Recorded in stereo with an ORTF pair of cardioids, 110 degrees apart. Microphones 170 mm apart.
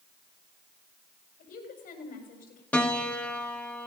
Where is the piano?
10° left, 2 m.